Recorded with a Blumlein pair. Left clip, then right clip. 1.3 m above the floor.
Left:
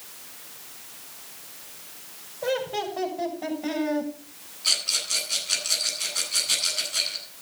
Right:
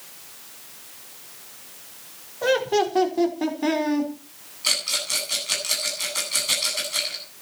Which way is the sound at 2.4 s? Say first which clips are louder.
Right 6 dB; 40° right.